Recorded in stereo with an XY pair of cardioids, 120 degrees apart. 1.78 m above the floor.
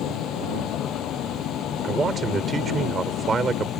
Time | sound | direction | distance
0.0 | a vehicle | 70° left | ?
1.8 | a man speaking | 30° right | ?